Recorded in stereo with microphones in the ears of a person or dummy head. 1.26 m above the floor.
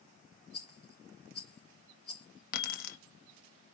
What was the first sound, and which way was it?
A rattle, 5° left (ahead or behind).